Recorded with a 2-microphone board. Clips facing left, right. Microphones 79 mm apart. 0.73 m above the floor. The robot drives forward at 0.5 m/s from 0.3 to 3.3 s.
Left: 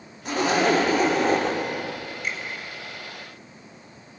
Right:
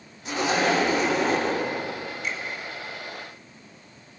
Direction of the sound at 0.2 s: 45° left (ahead or behind).